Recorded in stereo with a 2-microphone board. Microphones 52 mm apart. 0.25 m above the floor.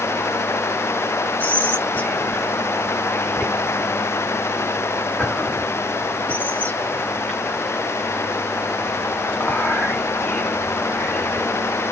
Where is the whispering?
35° left (ahead or behind), 2 m.